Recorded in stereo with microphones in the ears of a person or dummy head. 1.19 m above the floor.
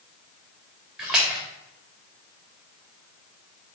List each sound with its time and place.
1.0 s a splash: 5° right (ahead or behind), 2.5 m